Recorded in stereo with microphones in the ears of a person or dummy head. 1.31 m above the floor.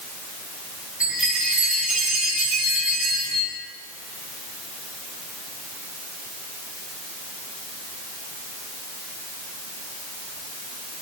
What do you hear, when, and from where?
1.0 s a chime: 5° right (ahead or behind), 7.5 m